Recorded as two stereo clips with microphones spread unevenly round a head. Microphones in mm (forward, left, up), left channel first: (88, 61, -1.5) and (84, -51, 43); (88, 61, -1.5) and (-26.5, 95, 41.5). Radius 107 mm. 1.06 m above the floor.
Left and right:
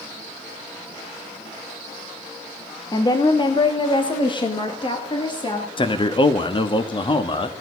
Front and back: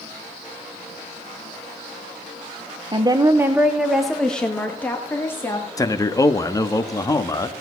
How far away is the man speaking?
About 1.4 m.